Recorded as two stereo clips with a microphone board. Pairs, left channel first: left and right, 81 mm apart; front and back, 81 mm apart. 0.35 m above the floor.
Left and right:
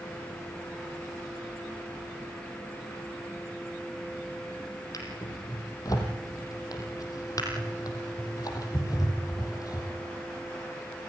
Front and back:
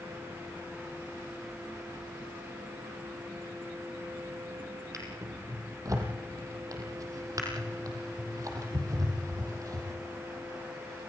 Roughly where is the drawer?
Behind left.